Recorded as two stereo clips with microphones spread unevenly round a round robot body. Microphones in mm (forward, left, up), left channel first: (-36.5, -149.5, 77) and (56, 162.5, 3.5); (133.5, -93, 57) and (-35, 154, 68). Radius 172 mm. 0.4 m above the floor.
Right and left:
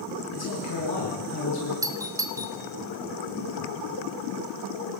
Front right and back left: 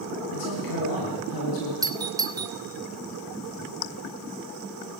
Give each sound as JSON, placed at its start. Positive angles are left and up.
{"t": 0.3, "sound": "a man speaking", "azimuth_deg": -60, "distance_m": 9.0}
{"t": 1.8, "sound": "a doorbell", "azimuth_deg": 60, "distance_m": 1.7}